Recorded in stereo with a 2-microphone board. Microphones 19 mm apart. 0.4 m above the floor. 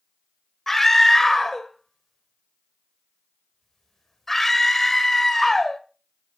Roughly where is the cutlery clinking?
I don't hear cutlery clinking.